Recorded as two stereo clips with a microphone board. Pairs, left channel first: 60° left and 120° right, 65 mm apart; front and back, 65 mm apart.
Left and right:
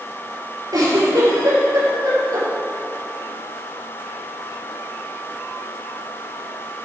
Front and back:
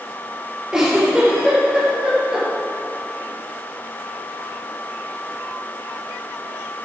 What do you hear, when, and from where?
0.7 s a giggle: 105° right, 4.5 m